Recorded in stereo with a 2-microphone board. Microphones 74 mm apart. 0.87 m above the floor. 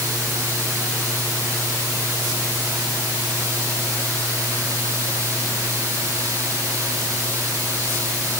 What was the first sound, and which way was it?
Only background noise.